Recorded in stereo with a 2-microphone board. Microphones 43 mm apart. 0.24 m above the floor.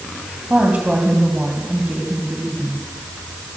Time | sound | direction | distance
0.5 | a woman speaking | 35° right (ahead or behind) | 1.9 m